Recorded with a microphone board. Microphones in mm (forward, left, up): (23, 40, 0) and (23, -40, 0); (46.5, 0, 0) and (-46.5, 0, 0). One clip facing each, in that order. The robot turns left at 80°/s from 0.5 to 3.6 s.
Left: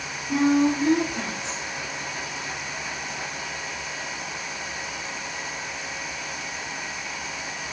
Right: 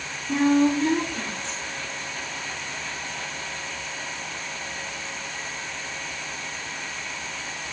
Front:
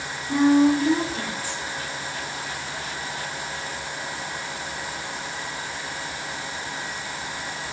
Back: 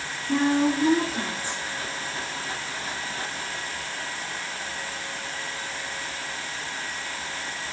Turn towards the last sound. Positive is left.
turn(degrees=-15)